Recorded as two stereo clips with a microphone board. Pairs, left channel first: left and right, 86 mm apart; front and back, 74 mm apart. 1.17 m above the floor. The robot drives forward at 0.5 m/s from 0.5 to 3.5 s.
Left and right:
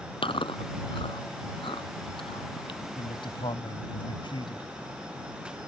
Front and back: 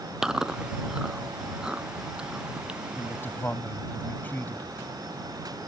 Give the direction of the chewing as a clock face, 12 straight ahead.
9 o'clock.